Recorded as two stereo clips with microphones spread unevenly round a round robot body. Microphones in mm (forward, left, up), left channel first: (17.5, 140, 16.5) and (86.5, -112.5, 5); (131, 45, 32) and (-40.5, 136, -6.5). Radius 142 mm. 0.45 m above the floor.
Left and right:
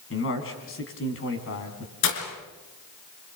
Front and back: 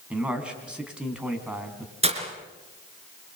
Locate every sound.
0.1 s a man speaking: 70° left, 4 m
2.0 s breaking glass: 95° left, 3.5 m